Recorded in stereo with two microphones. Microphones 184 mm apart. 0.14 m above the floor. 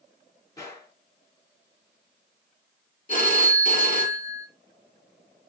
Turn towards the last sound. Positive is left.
turn(degrees=45)  # may be behind; listen again after turning